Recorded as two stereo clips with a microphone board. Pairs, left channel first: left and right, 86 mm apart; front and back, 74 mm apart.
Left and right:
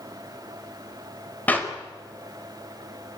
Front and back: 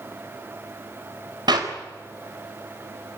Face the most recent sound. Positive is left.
turn(degrees=160)